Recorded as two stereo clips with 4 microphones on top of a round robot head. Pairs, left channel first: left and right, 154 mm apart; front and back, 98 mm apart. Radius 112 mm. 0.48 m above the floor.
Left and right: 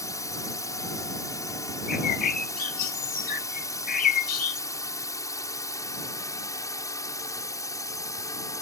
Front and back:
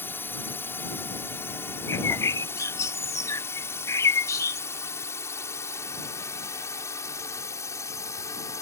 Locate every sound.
0.0 s a drone: 45° left; by 8.6 s 35° left
1.9 s a bird: 60° left